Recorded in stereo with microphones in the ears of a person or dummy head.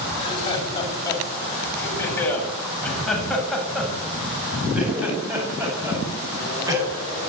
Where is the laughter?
25° left (ahead or behind), 8.5 m; by 7.3 s 20° right (ahead or behind), 10.5 m.